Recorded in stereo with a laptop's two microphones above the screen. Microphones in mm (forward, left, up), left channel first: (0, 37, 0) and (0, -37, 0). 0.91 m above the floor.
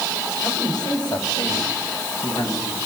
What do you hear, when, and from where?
0.4 s a man speaking: 65° left (ahead or behind), 6 m; by 2.8 s 45° left (ahead or behind), 7 m